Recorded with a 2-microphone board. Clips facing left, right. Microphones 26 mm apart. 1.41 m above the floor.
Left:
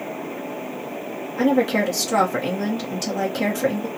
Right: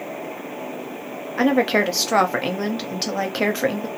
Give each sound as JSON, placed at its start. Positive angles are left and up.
{"t": 1.4, "sound": "a woman speaking", "side_deg": -45, "distance_m": 0.8}